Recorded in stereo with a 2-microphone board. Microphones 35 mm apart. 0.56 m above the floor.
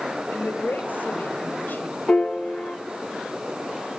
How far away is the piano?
About 8 m.